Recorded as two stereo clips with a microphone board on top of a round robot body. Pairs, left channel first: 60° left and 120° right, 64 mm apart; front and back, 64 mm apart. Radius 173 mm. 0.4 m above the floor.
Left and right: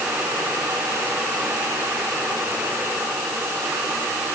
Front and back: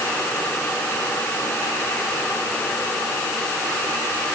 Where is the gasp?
No gasp in this recording.